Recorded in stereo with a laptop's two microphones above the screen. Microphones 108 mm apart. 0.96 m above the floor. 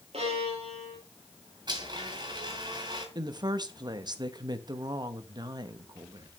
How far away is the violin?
About 4 m.